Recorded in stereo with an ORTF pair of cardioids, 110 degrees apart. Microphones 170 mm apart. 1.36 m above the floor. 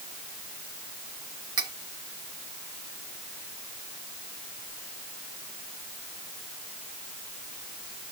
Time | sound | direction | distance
1.6 | cutlery clinking | 25° right | 1.3 m